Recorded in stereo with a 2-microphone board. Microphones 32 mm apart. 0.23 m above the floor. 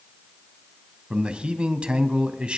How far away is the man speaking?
About 1.2 m.